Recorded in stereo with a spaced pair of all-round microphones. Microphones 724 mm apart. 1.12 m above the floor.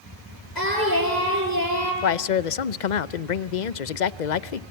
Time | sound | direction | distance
0.6 | singing | 80° left | 8.5 m
2.0 | a man speaking | 85° left | 0.8 m